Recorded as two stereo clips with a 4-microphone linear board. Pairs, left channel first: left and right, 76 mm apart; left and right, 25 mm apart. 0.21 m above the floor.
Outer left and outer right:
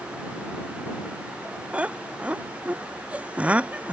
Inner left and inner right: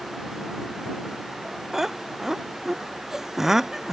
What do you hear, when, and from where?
1.7 s laughter: 20° right (ahead or behind)